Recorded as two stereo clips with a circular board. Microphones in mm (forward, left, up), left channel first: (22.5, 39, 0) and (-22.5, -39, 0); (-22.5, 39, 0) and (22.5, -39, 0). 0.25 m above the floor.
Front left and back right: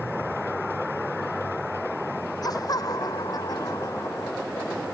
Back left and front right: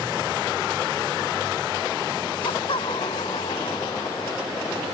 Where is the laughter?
105° left.